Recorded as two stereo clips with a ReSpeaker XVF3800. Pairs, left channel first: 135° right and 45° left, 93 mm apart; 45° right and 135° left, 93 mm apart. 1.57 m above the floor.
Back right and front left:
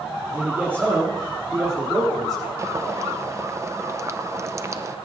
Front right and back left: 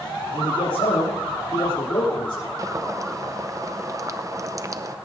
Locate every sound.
0.3 s a man speaking: 30° right, 3.5 m; by 2.5 s 10° right, 5.5 m
2.6 s boiling: 95° left, 0.7 m